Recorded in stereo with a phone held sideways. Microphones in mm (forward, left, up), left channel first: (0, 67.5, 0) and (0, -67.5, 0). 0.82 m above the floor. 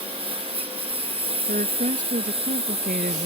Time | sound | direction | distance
0.0 | a lawn mower | 45° right (ahead or behind) | ?
1.5 | a woman speaking | 85° right | ?